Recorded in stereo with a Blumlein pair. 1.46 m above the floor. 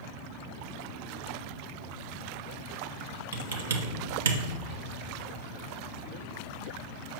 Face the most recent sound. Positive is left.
turn(degrees=-50)